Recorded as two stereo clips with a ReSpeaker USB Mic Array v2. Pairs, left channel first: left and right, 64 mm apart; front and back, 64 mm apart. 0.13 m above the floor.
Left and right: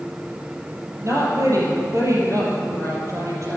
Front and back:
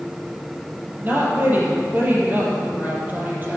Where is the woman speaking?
120° right, 3.5 m.